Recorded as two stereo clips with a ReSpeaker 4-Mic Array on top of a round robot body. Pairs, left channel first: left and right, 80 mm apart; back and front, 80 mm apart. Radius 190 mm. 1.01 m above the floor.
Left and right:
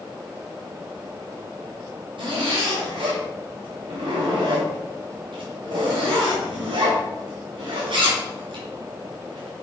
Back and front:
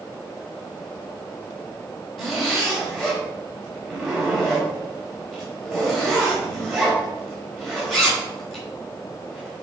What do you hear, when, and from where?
2.2 s a zipper: 95° right, 3 m